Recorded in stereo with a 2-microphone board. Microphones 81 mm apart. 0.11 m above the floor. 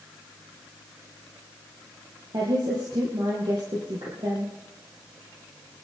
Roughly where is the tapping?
I don't hear tapping.